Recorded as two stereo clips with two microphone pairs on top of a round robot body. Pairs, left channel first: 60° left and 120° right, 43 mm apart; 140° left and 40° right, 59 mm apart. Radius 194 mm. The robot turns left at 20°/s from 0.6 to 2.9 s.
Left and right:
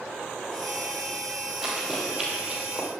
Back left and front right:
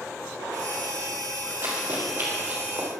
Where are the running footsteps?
15° right, 3 m; by 2.9 s 55° right, 2.5 m.